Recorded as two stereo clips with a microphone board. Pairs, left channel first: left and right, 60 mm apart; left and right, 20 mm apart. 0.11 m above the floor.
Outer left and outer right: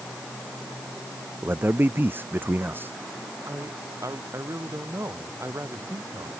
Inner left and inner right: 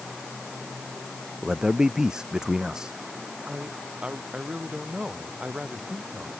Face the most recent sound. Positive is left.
turn(degrees=-55)  # may be behind; listen again after turning